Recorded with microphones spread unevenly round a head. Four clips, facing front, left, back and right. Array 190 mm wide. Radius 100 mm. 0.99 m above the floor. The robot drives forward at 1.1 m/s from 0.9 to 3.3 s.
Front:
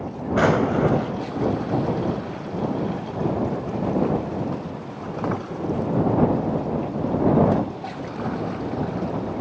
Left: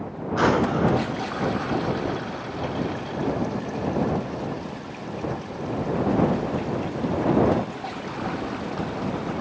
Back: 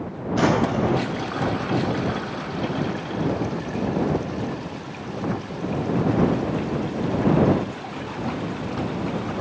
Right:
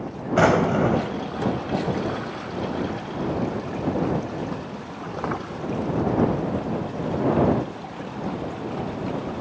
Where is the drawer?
70° right, 4 m.